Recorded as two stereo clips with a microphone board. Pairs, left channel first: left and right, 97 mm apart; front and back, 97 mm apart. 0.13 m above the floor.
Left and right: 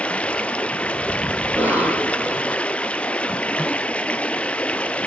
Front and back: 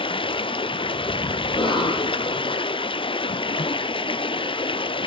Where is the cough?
20° right, 5.5 m.